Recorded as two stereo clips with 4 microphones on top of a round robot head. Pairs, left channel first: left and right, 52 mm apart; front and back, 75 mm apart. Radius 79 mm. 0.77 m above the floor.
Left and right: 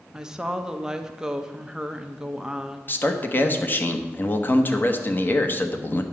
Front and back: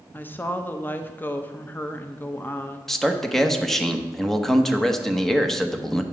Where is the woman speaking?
25° right, 0.8 m.